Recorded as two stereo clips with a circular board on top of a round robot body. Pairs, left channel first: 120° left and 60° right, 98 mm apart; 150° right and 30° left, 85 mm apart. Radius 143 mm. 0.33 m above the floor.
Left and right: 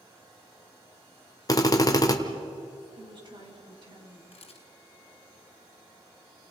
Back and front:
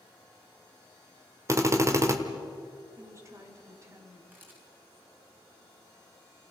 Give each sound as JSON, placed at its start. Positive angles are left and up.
{"t": 1.5, "sound": "a drill", "azimuth_deg": 75, "distance_m": 2.0}
{"t": 3.0, "sound": "a woman speaking", "azimuth_deg": -25, "distance_m": 4.5}
{"t": 4.3, "sound": "a camera shutter", "azimuth_deg": 100, "distance_m": 2.5}